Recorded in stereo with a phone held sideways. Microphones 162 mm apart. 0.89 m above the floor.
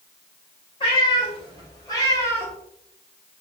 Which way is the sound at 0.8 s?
30° left (ahead or behind).